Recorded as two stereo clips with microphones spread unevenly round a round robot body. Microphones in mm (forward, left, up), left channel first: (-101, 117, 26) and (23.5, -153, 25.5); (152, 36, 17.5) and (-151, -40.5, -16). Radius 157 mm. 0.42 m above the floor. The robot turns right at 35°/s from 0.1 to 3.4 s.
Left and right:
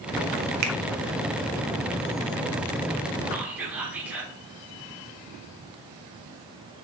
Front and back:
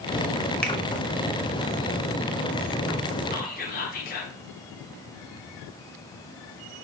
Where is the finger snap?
75° right, 1.0 m; by 0.8 s 70° right, 1.0 m.